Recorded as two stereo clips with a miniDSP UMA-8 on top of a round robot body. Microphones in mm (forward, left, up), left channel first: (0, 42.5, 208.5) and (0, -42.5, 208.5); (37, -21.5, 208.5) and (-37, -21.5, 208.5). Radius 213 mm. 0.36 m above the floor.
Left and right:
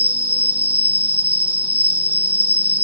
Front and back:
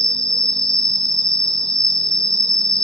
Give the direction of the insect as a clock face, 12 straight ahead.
5 o'clock.